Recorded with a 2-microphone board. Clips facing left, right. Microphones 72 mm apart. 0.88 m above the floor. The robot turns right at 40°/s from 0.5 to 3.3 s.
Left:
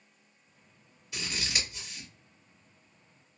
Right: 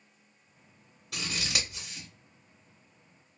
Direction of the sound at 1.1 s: 65° right (ahead or behind).